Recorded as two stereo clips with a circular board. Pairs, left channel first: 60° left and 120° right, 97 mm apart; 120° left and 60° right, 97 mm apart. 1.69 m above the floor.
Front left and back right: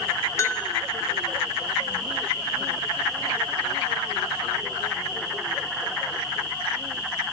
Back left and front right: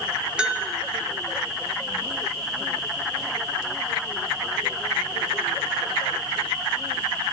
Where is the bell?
15° left, 0.7 m.